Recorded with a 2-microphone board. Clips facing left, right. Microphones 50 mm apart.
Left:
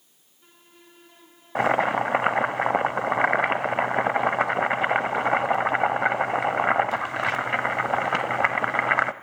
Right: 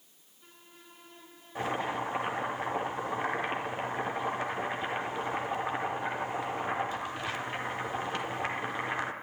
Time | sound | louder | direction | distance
1.6 | boiling | left 11 dB | 90° left | 0.6 m